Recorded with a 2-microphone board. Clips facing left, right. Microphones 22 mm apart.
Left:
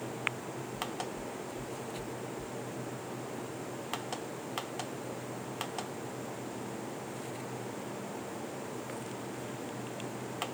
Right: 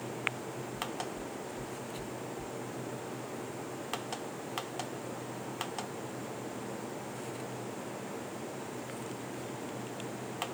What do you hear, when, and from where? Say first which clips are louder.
0.8 s knocking: even; 75° right (ahead or behind), 1.9 m